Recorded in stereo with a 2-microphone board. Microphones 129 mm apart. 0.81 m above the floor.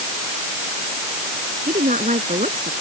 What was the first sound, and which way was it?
A woman speaking, 75° right (ahead or behind).